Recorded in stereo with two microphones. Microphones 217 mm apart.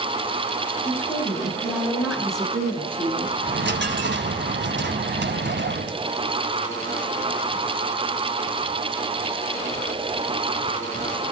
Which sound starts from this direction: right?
A dropped coin, at 3.4 s.